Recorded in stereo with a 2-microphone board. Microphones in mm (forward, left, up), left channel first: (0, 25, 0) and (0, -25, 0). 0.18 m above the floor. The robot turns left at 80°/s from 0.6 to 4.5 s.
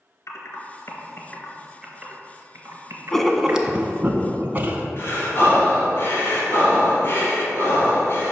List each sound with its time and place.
0.3 s typing on a keyboard: 70° left (ahead or behind), 1.0 m; by 3.8 s 10° right (ahead or behind), 1.0 m
3.1 s writing: 10° left (ahead or behind), 0.5 m; by 4.9 s 40° right (ahead or behind), 0.5 m
5.0 s breathing: 45° left (ahead or behind), 2.0 m